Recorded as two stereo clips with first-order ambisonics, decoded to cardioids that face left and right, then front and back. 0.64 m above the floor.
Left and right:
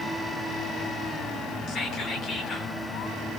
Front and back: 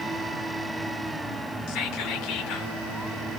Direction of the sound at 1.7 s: 30° left.